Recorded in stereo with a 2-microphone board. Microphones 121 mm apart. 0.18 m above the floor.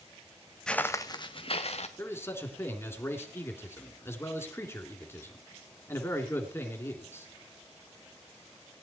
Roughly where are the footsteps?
Centre.